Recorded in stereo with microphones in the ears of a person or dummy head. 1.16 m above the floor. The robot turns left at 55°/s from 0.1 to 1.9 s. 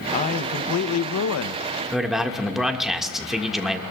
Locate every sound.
0.1 s a man speaking: 150° left, 0.7 m; by 1.6 s 65° left, 0.7 m
1.9 s a man speaking: 10° right (ahead or behind), 1.6 m